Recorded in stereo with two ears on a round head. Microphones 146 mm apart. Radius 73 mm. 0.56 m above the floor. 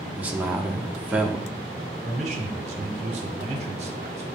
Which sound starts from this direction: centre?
A man speaking, at 0.2 s.